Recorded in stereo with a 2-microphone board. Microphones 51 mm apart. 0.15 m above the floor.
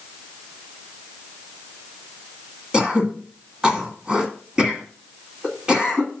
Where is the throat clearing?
20° right (ahead or behind), 1.6 m.